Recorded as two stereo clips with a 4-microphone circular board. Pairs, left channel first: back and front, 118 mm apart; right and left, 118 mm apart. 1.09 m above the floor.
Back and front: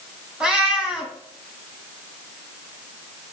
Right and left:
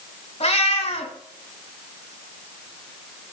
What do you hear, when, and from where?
0.4 s a cat meowing: 85° right, 2 m